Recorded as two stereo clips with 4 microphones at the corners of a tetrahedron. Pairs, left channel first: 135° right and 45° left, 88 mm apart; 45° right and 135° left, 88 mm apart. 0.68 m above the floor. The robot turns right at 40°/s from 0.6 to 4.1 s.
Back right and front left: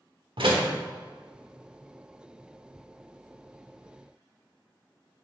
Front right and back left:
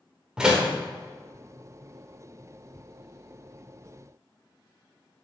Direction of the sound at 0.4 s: 55° left.